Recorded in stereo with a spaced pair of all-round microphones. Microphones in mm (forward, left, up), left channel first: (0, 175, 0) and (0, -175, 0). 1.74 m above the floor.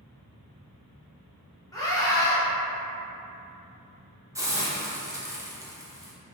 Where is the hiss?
10° right (ahead or behind), 0.8 m.